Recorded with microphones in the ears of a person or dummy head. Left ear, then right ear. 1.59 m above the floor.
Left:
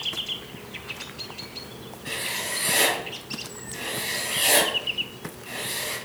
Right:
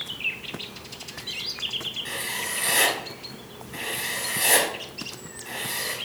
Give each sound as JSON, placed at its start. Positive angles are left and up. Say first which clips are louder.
{"t": 2.0, "sound": "writing", "louder": "even", "side_deg": -30, "distance_m": 2.5}